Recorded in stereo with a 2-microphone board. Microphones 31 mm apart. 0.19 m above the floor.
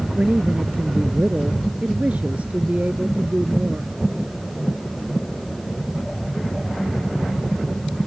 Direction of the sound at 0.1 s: 50° right (ahead or behind).